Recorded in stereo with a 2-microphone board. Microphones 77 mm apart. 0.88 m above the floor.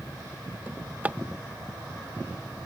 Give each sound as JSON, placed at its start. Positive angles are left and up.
{"t": 0.7, "sound": "a drawer", "side_deg": -20}